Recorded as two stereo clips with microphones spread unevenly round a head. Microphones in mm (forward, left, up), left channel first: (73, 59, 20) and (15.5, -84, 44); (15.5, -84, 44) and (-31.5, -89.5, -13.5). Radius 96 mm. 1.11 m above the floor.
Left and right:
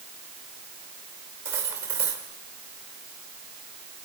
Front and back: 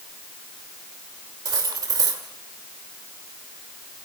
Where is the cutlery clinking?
170° left, 2.5 m.